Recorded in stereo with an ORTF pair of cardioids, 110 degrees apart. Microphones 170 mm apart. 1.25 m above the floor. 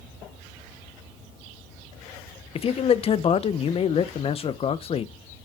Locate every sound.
2.5 s a man speaking: 35° left, 0.7 m